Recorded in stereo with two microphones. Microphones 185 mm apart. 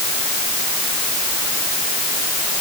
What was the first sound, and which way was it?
Only background noise.